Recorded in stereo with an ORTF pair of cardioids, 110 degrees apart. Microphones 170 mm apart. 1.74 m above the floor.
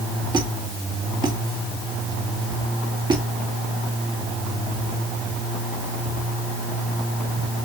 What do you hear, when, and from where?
0.3 s a squeak: 30° right, 2.5 m